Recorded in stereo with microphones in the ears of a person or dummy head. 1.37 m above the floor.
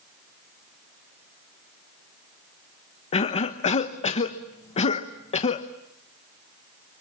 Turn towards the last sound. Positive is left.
turn(degrees=35)  # may be behind; listen again after turning